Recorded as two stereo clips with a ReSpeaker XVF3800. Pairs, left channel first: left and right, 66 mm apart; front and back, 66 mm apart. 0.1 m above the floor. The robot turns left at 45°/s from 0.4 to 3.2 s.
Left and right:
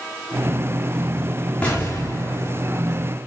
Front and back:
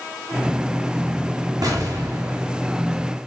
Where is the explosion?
160° left, 3.5 m; by 3.0 s 100° left, 3.5 m.